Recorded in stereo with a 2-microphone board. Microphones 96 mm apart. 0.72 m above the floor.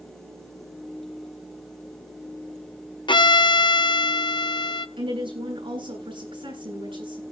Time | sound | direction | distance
3.1 | a violin | 55° left (ahead or behind) | 0.7 m
5.0 | a woman speaking | 65° right (ahead or behind) | 9 m